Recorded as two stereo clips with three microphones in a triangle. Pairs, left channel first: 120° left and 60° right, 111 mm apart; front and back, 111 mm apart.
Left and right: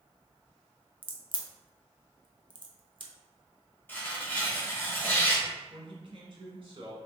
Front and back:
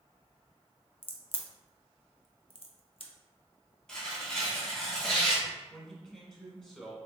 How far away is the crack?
About 0.6 m.